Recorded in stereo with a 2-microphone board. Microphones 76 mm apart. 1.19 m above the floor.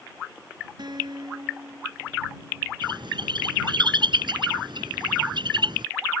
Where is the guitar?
70° right (ahead or behind).